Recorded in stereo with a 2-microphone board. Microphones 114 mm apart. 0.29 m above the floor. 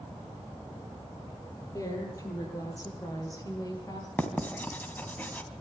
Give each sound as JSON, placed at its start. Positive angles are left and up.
{"t": 1.7, "sound": "a woman speaking", "side_deg": 30, "distance_m": 8.0}
{"t": 4.2, "sound": "writing", "side_deg": 15, "distance_m": 2.5}